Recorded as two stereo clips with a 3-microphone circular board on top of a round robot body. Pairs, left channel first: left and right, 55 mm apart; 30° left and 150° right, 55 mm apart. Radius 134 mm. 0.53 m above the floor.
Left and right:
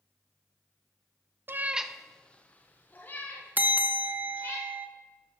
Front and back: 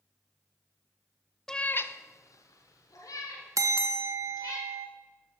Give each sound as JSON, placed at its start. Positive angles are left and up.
{"t": 1.5, "sound": "a cat meowing", "azimuth_deg": -55, "distance_m": 0.5}
{"t": 3.6, "sound": "a bell", "azimuth_deg": -145, "distance_m": 0.8}